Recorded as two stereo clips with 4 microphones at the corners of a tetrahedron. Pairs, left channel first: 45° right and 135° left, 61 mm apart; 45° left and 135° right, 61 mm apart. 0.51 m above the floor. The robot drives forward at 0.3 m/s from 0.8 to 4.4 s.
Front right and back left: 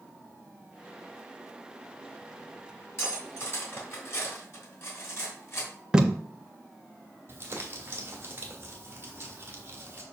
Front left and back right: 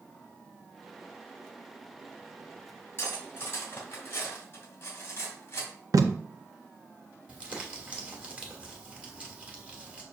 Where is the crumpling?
165° left, 1.6 m.